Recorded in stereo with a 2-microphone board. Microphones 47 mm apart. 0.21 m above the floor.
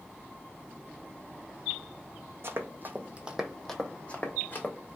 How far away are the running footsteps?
About 0.8 m.